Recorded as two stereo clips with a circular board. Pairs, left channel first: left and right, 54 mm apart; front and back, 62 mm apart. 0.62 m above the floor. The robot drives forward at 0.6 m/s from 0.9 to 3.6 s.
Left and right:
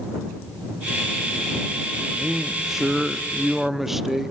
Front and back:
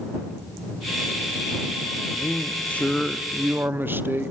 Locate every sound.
2.1 s a man speaking: 5° right, 0.8 m; by 4.3 s 170° right, 0.6 m